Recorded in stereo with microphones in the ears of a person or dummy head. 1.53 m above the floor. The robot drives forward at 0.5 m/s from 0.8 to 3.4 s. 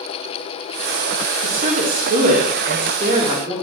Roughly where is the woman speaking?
Right.